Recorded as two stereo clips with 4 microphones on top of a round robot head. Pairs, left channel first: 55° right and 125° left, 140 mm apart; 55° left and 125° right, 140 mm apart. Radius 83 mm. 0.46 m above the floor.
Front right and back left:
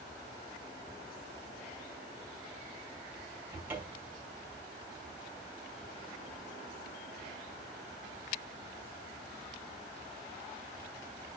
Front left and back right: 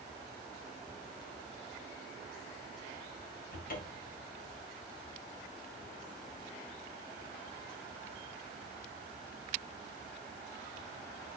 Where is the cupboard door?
50° left, 2 m.